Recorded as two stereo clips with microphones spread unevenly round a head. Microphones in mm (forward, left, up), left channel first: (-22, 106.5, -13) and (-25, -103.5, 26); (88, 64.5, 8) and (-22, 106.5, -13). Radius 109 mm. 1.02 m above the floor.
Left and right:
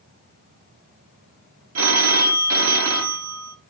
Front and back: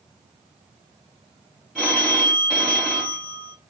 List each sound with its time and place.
1.8 s a phone ringing: 110° right, 0.6 m